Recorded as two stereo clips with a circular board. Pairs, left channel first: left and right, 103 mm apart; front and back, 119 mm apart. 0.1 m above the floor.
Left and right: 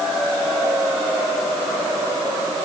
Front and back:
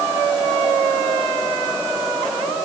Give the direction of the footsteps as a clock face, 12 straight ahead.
I don't hear footsteps.